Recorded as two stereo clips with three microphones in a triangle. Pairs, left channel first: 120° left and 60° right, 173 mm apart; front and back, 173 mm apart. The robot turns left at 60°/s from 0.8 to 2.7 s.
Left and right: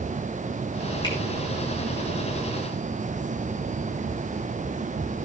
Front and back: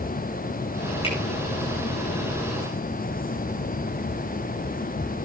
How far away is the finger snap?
About 6.5 m.